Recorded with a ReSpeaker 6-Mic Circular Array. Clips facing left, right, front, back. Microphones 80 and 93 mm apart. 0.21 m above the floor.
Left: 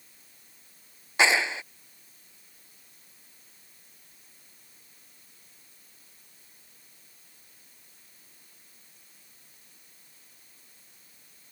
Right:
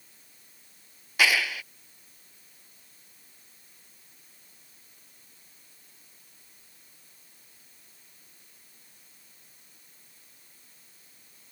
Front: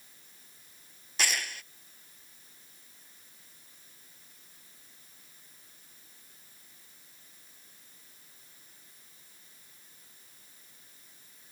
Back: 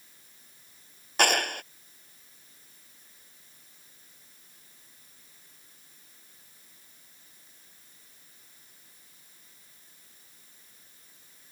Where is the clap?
150° left.